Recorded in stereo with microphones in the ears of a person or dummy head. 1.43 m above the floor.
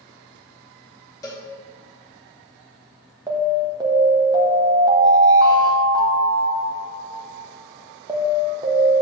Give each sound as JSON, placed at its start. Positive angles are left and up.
{"t": 1.2, "sound": "a cowbell", "side_deg": 20, "distance_m": 2.0}
{"t": 3.3, "sound": "an alarm", "side_deg": -20, "distance_m": 1.4}